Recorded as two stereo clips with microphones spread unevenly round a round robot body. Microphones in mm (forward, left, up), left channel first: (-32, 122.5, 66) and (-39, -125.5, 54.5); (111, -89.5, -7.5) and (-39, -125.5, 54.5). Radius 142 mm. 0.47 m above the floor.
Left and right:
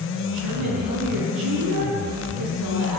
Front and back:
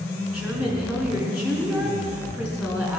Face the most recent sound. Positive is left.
turn(degrees=-85)